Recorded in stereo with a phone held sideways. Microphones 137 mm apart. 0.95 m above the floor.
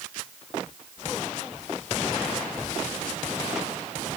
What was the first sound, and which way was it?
Only background noise.